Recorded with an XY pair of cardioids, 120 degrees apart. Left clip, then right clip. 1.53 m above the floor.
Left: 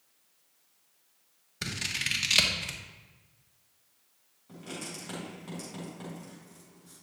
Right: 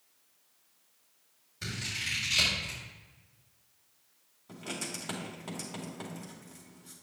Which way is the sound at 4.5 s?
35° right.